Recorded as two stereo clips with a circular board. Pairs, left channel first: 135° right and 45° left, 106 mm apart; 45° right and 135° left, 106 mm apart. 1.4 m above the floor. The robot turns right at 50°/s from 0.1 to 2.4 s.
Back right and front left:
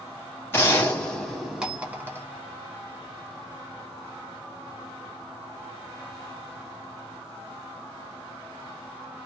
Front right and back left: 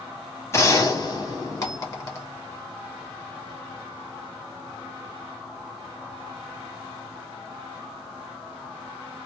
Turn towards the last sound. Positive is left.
turn(degrees=10)